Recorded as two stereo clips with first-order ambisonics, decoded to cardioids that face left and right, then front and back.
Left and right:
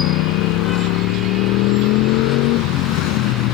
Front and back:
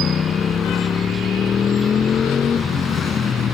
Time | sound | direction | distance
0.0 | a motorcycle | 65° left | ?